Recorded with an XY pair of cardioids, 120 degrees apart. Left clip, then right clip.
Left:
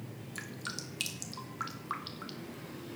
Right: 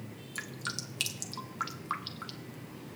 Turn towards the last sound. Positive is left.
turn(degrees=-15)